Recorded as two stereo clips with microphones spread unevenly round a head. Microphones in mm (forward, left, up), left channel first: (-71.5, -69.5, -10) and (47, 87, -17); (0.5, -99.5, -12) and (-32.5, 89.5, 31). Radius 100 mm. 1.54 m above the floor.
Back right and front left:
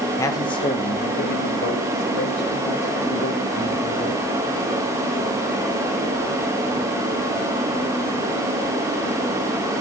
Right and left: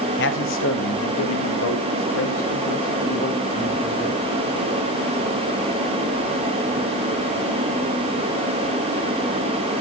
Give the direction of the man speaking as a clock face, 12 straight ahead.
2 o'clock.